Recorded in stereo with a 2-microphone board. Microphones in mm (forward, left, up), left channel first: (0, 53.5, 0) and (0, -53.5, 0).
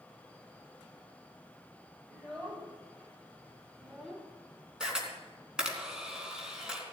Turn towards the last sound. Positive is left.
turn(degrees=-5)  # may be behind; listen again after turning